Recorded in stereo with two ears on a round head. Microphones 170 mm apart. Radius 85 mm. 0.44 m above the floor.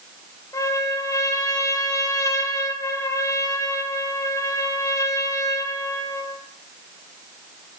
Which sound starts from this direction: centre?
A trumpet, at 0.5 s.